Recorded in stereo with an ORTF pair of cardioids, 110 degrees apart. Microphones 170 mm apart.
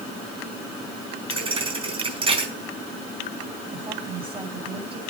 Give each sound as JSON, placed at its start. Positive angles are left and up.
{"t": 1.3, "sound": "a thud", "azimuth_deg": -30, "distance_m": 4.5}
{"t": 3.7, "sound": "a woman speaking", "azimuth_deg": -30, "distance_m": 8.5}